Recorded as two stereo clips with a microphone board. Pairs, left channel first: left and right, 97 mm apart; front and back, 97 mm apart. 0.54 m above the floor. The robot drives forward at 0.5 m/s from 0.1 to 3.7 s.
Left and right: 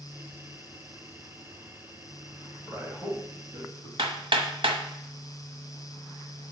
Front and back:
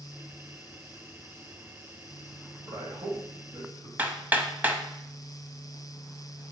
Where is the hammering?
110° right, 0.8 m.